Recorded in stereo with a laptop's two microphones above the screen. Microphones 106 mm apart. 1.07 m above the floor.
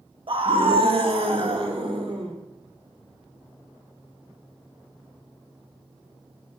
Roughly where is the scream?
Right.